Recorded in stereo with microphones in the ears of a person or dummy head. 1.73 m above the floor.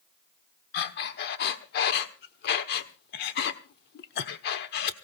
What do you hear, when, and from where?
0.7 s breathing: 60° left (ahead or behind), 1.0 m